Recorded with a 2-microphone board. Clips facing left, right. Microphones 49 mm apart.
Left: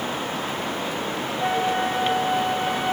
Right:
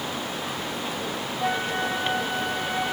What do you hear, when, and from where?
1.4 s a flute: 5° left (ahead or behind), 0.6 m